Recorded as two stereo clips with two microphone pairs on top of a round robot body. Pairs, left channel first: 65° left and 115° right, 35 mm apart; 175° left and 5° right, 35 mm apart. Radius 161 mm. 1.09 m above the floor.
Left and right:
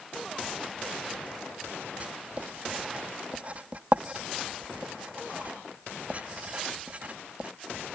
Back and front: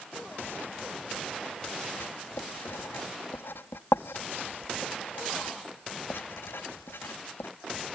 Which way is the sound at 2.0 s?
165° right.